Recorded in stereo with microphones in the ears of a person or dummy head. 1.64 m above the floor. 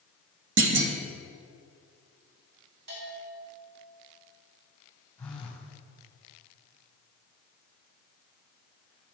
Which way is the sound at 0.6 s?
75° right (ahead or behind).